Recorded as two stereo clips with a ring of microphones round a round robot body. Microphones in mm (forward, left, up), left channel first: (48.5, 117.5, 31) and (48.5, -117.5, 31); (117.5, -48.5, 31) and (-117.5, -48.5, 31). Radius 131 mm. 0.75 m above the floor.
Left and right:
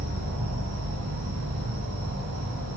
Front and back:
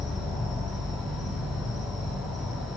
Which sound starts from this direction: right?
An insect, at 0.0 s.